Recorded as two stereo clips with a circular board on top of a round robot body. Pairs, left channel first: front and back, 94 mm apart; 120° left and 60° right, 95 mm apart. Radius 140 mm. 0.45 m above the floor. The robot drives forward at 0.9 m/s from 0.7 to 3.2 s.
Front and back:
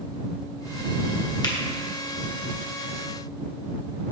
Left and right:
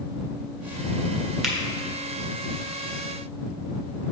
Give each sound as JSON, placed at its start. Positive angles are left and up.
{"t": 1.4, "sound": "a finger snap", "azimuth_deg": 25, "distance_m": 1.5}